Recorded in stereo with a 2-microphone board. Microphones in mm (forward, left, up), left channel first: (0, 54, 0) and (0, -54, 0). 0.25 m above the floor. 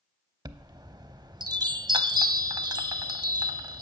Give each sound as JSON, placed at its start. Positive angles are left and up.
{"t": 0.5, "sound": "a chime", "side_deg": -40, "distance_m": 0.5}